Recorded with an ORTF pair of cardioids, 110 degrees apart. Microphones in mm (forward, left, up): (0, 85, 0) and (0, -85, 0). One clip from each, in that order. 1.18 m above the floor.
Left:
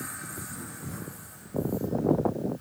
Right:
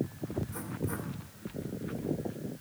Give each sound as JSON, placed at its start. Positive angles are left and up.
{"t": 0.5, "sound": "writing", "azimuth_deg": -70, "distance_m": 2.5}